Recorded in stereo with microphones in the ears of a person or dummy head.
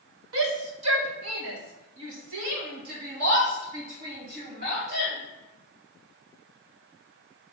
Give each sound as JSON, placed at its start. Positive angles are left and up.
{"t": 0.3, "sound": "a shout", "side_deg": -65, "distance_m": 1.3}